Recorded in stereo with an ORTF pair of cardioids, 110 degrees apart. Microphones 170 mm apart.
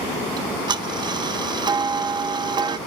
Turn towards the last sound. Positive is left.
turn(degrees=-25)